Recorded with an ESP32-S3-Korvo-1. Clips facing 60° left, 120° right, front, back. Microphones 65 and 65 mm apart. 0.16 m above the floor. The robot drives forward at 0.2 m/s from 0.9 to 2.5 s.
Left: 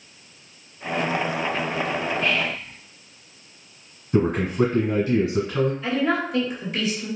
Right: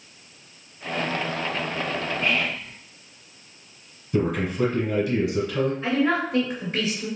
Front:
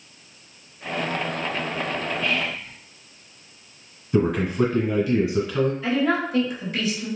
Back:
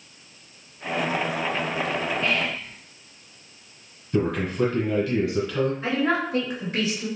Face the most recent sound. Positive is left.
turn(degrees=-155)